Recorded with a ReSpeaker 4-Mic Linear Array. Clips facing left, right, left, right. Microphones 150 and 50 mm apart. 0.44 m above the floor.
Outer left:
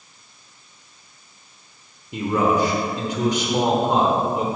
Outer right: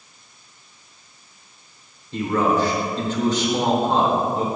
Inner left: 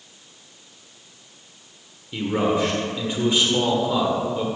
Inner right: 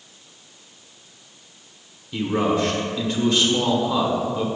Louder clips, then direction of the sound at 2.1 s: Even, even; 15° left (ahead or behind).